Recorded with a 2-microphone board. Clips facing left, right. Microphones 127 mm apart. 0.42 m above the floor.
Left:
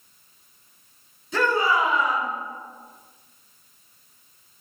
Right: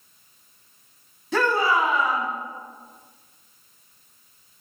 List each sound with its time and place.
1.3 s a shout: 75° right (ahead or behind), 3 m